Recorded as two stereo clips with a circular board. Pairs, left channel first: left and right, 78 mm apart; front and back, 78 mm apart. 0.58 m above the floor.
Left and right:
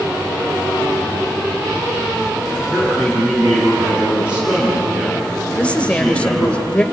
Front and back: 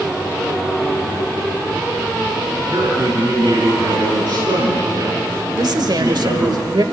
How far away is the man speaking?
About 8 m.